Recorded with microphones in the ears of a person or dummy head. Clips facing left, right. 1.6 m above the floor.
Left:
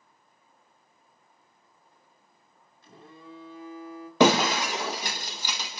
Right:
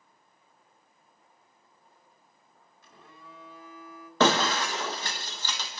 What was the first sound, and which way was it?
A phone buzzing, 25° left (ahead or behind).